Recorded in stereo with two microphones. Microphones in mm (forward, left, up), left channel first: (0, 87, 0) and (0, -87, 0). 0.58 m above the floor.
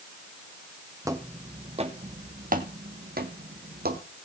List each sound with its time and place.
1.1 s footsteps: 20° right (ahead or behind), 1.2 m; by 4.0 s 60° right (ahead or behind), 1.5 m